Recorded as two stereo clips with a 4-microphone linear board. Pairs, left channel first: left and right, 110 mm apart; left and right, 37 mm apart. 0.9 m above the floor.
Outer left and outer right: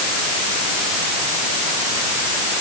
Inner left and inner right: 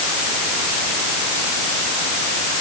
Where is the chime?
No chime in this recording.